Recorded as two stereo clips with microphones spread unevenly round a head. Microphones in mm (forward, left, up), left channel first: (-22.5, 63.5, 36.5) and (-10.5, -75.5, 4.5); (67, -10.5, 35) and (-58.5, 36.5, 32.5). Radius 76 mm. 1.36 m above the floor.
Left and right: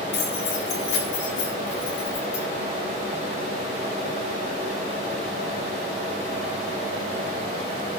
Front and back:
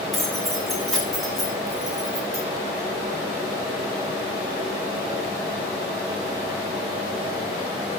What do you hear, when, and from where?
0.1 s keys jangling: 70° left, 9 m